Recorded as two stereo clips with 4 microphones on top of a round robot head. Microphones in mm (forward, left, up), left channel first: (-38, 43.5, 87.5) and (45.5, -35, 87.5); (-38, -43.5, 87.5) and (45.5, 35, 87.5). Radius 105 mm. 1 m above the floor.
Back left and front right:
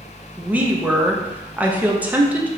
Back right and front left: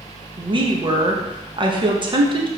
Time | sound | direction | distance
0.4 | a woman speaking | 30° left | 0.9 m